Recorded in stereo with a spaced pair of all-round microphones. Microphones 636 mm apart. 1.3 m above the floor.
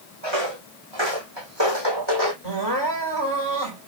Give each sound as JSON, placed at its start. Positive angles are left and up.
{"t": 0.2, "sound": "footsteps", "side_deg": -45, "distance_m": 4.0}
{"t": 2.4, "sound": "crying", "side_deg": -40, "distance_m": 4.5}